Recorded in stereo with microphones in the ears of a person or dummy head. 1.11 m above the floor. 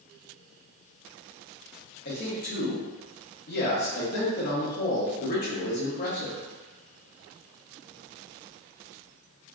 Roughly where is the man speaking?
Left.